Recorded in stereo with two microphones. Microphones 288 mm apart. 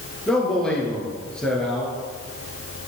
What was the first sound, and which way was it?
A man speaking, 5° left (ahead or behind).